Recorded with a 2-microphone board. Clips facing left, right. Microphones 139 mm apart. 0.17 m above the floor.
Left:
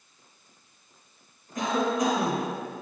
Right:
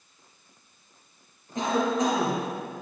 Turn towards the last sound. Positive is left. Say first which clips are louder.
# right 1 dB
turn(degrees=-25)  # may be behind; listen again after turning